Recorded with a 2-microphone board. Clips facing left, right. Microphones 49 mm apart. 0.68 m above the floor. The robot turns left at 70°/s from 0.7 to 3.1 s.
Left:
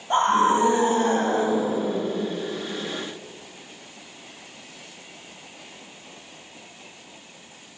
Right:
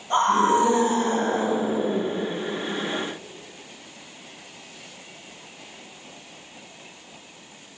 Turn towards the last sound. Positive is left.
turn(degrees=-15)